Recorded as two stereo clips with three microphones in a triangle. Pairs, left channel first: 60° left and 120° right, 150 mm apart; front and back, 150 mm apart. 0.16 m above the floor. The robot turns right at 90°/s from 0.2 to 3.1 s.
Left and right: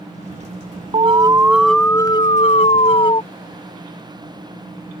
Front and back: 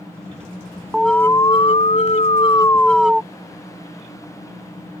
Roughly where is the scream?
I don't hear a scream.